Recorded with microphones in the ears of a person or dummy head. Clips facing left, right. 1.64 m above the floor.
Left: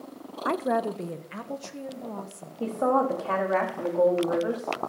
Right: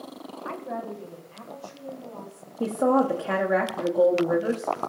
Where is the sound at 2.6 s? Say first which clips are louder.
Right 3 dB; 20° right (ahead or behind), 1.3 m.